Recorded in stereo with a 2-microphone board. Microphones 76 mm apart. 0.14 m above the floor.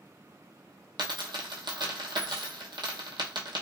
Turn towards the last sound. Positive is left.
turn(degrees=-80)